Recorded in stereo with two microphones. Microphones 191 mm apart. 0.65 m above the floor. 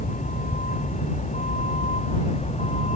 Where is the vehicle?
40° left (ahead or behind); by 3.0 s 35° left (ahead or behind).